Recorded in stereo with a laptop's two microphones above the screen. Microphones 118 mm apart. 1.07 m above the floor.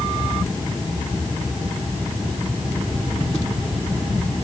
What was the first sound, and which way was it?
Only background noise.